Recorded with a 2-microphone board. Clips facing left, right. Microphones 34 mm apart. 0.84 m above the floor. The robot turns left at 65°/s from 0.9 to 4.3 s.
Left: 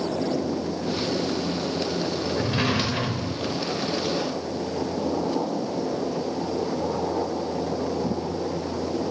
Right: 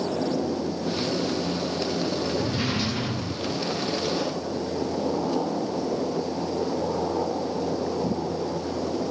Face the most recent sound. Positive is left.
turn(degrees=5)